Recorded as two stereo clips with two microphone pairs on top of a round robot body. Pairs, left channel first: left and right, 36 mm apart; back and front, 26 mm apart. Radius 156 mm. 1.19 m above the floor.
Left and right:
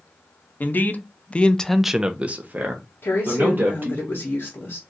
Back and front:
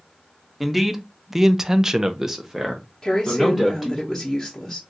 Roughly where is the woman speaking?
Left.